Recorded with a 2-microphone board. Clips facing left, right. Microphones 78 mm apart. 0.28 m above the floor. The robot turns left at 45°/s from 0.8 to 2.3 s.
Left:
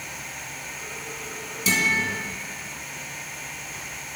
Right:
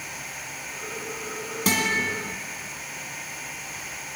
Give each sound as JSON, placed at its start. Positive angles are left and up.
{"t": 1.7, "sound": "a guitar", "side_deg": -60, "distance_m": 2.5}